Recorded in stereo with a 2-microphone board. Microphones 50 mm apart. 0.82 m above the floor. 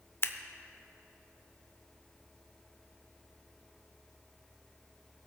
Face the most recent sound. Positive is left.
turn(degrees=45)  # may be behind; listen again after turning